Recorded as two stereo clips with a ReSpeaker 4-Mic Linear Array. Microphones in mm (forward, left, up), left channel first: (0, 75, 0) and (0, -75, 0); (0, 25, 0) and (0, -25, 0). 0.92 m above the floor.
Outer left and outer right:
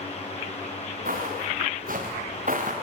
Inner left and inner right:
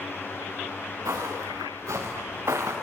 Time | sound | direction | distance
1.1 | footsteps | 70° right (ahead or behind) | 6.5 m